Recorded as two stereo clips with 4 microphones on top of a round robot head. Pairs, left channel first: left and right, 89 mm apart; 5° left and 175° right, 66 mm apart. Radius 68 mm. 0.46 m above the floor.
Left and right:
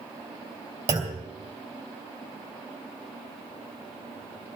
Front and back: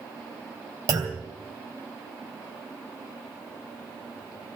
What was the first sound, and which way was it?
A clunk, 140° right.